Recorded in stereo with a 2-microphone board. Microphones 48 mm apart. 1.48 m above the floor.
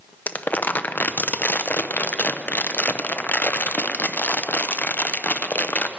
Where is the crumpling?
40° left (ahead or behind), 0.6 m.